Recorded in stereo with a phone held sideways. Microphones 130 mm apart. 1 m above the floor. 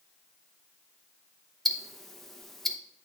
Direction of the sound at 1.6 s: Centre (ahead or behind).